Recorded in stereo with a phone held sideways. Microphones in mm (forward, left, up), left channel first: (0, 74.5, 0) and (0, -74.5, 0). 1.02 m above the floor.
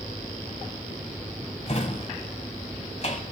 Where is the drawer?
50° left (ahead or behind), 1.5 m.